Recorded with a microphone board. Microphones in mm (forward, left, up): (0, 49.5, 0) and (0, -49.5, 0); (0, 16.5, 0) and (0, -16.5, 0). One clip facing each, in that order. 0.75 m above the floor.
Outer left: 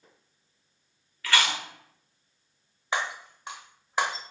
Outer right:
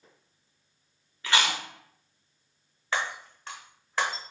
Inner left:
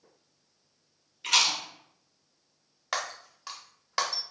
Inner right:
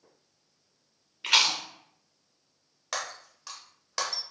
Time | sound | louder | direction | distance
1.2 | chewing | even, inner right 2 dB | 20° right (ahead or behind) | 0.6 m
2.9 | breaking glass | outer left 1 dB, inner left 2 dB | 15° left (ahead or behind) | 0.5 m